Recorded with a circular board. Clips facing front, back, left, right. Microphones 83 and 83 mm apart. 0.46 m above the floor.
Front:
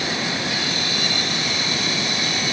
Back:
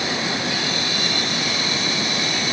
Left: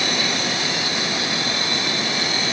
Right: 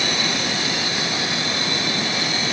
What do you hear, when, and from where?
Only background noise.